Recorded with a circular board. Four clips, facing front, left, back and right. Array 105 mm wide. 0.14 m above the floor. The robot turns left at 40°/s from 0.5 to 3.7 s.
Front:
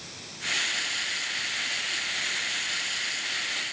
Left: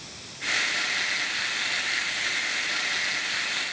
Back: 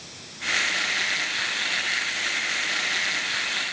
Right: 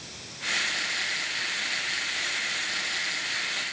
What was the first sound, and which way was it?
Only background noise.